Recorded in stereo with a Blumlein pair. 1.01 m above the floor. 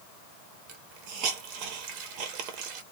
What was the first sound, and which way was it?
A hiss, 40° right.